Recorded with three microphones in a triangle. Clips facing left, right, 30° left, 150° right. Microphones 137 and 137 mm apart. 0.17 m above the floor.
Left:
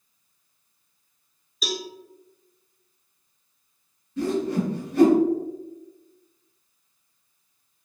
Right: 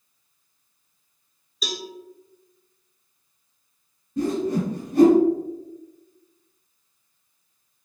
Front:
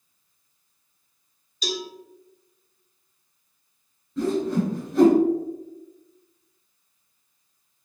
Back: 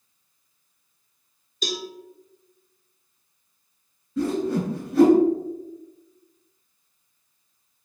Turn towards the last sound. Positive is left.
turn(degrees=-60)